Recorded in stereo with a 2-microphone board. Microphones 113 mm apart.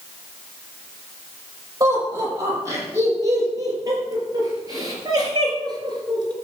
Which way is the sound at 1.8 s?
30° right (ahead or behind).